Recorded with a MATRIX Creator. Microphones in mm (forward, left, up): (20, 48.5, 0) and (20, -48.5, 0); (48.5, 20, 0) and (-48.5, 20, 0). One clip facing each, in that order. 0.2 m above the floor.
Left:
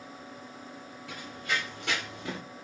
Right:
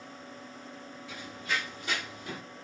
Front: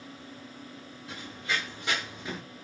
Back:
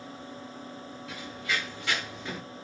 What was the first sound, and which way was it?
Running footsteps, 55° left.